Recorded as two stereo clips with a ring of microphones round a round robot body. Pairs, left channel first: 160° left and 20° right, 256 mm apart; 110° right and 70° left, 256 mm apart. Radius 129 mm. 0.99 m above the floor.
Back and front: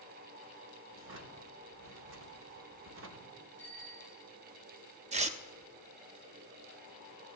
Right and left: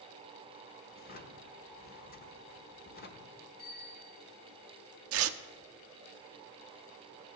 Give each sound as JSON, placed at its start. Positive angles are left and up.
{"t": 0.9, "sound": "a drawer", "azimuth_deg": -60, "distance_m": 1.1}
{"t": 3.6, "sound": "a bicycle bell", "azimuth_deg": -125, "distance_m": 5.5}
{"t": 5.1, "sound": "tearing paper", "azimuth_deg": 40, "distance_m": 0.6}